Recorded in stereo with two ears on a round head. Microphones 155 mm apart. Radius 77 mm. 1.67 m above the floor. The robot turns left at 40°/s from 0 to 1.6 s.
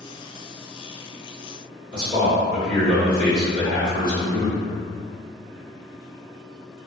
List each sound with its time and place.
1.9 s a man speaking: 25° left (ahead or behind), 1.0 m